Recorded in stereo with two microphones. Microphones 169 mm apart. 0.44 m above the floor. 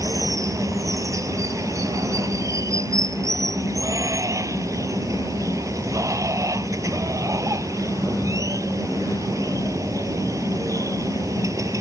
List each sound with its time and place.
0.0 s running water: 20° right (ahead or behind)